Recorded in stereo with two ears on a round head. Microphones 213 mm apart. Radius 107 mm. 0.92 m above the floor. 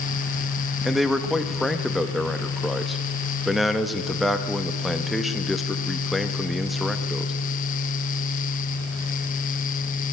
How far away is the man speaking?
About 1.0 m.